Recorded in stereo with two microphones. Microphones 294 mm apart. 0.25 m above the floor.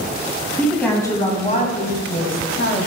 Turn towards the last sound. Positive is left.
turn(degrees=50)  # may be behind; listen again after turning